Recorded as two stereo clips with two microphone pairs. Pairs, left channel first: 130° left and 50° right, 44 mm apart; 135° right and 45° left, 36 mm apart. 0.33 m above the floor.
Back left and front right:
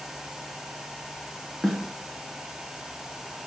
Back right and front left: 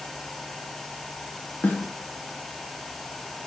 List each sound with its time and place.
1.6 s a snare drum: 145° right, 1.3 m